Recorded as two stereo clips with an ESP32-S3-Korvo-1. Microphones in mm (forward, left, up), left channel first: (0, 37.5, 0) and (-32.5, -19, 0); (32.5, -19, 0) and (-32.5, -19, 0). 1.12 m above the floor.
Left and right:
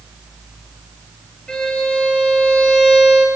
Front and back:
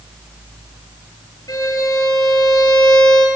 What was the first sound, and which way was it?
A violin, 15° right.